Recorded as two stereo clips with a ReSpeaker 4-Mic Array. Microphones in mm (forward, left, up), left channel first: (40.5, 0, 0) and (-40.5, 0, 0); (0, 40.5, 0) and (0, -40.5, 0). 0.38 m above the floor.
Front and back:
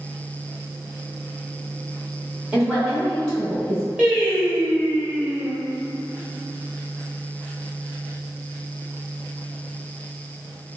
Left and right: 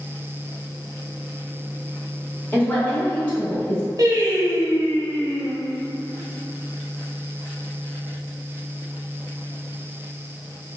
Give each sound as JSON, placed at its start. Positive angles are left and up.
{"t": 2.5, "sound": "a woman speaking", "azimuth_deg": 115, "distance_m": 1.3}
{"t": 4.0, "sound": "singing", "azimuth_deg": -110, "distance_m": 0.9}